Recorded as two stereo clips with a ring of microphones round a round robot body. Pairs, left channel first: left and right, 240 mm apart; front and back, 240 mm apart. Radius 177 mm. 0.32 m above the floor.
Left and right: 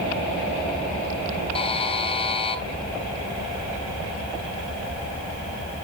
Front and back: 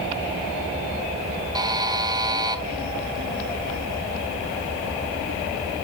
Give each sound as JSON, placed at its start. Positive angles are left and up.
{"t": 1.6, "sound": "a buzzer", "azimuth_deg": 125, "distance_m": 1.5}